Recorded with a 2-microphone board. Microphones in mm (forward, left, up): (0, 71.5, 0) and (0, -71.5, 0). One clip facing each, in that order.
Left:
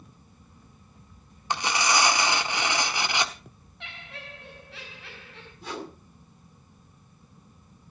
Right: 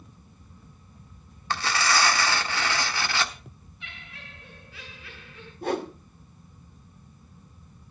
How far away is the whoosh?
About 1.9 m.